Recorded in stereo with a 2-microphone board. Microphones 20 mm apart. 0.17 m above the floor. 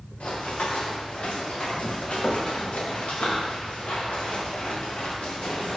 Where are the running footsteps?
70° left (ahead or behind), 3 m; by 5.8 s 80° left, 6 m.